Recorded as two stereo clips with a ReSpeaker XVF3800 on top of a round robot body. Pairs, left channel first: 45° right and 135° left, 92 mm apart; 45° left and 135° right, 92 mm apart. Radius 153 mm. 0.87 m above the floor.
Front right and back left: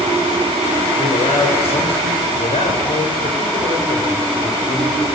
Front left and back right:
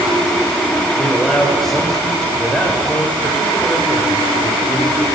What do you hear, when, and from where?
1.0 s a man speaking: 45° right, 4.5 m; by 5.1 s 20° right, 4.5 m